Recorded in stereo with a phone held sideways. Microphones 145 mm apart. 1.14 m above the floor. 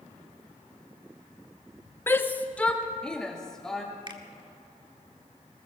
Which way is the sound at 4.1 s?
30° right (ahead or behind).